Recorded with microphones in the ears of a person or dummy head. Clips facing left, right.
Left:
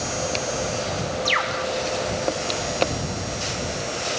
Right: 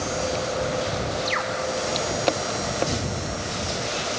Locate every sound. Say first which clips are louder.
1.2 s a bird: left 1 dB; 55° left (ahead or behind)